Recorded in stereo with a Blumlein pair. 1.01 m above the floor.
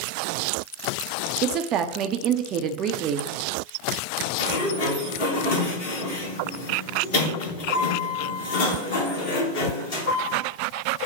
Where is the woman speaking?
35° right, 0.5 m.